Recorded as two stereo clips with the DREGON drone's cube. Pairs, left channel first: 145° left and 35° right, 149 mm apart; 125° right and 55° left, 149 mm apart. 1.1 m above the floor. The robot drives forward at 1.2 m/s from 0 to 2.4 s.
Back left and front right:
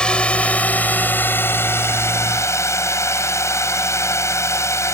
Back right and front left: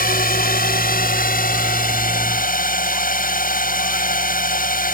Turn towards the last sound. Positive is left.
turn(degrees=-145)